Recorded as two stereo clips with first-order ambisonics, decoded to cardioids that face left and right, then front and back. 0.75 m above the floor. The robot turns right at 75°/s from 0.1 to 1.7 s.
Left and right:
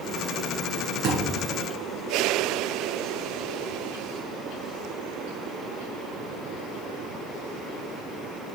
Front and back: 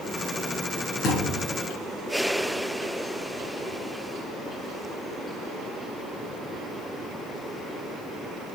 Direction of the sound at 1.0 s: 45° right.